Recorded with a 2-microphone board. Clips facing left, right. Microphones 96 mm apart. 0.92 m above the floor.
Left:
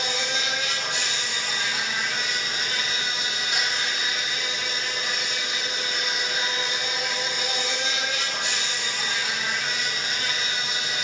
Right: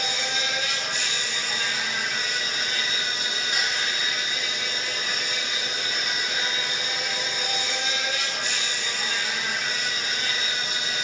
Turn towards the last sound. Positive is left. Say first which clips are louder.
# left 1 dB
turn(degrees=80)